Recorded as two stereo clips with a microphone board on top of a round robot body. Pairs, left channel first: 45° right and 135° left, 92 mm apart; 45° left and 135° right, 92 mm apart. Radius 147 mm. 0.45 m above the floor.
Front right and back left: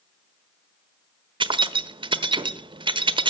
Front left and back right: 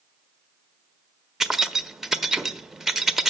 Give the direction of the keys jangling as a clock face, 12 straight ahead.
7 o'clock.